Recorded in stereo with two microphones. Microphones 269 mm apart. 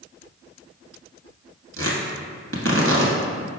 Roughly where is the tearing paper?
Right.